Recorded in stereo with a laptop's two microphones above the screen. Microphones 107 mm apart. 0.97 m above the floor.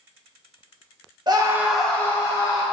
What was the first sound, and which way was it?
A scream, 40° right (ahead or behind).